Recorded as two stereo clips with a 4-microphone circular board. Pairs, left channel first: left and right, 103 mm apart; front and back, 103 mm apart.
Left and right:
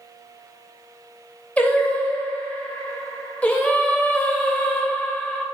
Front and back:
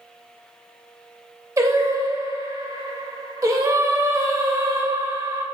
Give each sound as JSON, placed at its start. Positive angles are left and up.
{"t": 1.6, "sound": "singing", "azimuth_deg": 155, "distance_m": 0.6}